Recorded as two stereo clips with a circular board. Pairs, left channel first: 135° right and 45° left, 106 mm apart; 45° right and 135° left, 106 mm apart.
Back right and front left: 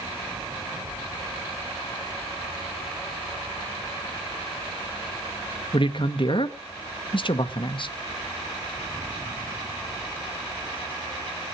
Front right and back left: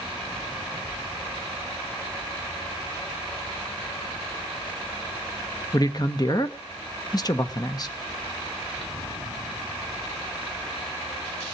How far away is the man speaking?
About 1.2 m.